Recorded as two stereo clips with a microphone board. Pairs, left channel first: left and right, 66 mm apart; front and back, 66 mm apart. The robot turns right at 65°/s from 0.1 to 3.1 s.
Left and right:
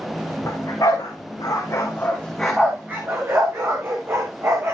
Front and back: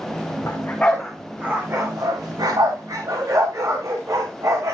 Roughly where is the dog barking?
Ahead left.